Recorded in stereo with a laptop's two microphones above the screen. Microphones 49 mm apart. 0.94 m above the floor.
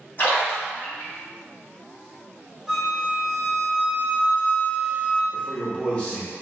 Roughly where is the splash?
Left.